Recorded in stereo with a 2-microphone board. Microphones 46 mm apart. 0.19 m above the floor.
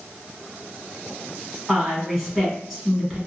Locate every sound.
1.7 s a woman speaking: 5° right (ahead or behind), 1.4 m